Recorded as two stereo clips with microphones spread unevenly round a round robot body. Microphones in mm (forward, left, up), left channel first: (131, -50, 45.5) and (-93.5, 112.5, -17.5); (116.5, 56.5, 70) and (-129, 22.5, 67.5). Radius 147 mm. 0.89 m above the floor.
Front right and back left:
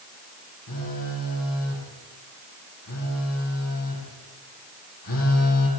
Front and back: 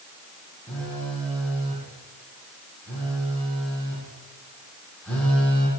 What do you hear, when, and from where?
0.7 s a phone buzzing: 80° right, 9 m